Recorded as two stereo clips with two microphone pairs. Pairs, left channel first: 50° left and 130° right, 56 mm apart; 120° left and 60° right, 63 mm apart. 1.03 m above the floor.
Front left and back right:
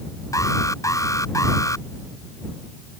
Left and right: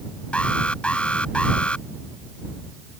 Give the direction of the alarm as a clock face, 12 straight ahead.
10 o'clock.